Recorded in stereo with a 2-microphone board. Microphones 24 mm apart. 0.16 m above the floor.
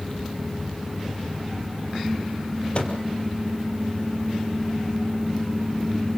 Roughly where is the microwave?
Left.